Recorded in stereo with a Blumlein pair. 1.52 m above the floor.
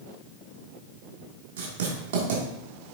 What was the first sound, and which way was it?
Writing, 55° right.